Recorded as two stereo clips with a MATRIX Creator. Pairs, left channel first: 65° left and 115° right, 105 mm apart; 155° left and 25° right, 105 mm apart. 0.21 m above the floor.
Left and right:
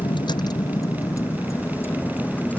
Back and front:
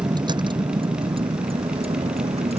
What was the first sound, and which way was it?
A vehicle, 25° left.